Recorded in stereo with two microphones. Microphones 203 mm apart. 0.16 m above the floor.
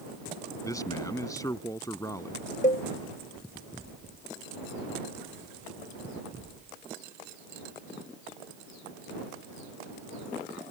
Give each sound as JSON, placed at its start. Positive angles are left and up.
{"t": 0.6, "sound": "a man speaking", "side_deg": 15}
{"t": 2.6, "sound": "a cowbell", "side_deg": 40}